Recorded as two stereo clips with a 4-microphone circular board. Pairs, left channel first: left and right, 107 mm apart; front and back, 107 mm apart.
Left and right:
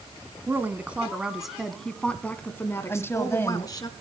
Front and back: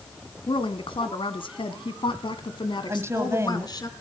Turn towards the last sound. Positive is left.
turn(degrees=140)